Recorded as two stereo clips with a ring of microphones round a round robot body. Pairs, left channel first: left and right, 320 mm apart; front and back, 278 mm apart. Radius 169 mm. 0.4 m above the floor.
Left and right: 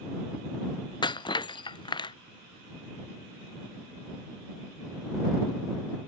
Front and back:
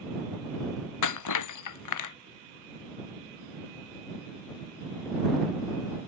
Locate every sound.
1.0 s breaking glass: 15° left